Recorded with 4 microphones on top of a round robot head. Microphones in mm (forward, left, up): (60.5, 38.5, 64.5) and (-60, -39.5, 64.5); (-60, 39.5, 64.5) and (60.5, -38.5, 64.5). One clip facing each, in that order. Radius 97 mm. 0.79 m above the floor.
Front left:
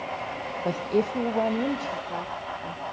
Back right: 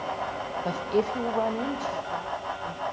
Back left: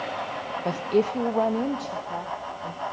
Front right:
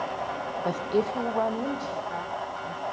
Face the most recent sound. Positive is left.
turn(degrees=85)